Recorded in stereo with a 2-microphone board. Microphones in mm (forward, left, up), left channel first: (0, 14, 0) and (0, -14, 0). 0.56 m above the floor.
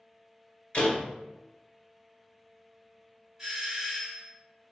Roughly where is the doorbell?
Centre.